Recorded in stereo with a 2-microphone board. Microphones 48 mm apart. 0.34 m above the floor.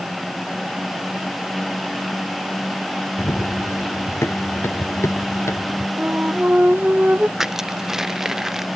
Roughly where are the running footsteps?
Left.